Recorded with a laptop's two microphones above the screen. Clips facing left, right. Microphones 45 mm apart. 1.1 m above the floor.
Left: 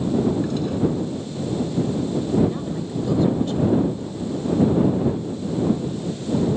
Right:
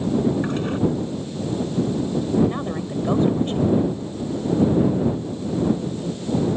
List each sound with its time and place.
0.4 s a toilet flushing: 40° right (ahead or behind)
2.5 s a woman speaking: 35° right (ahead or behind)